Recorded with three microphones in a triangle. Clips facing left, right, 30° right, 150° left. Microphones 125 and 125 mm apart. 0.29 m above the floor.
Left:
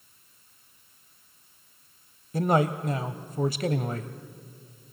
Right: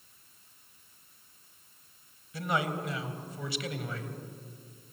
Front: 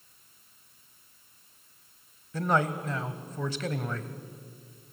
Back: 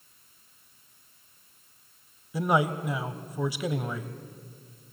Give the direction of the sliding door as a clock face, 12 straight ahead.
No sliding door in this recording.